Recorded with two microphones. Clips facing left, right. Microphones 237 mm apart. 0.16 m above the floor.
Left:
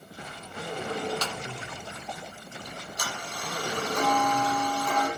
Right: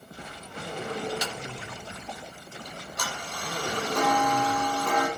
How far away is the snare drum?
About 1.0 m.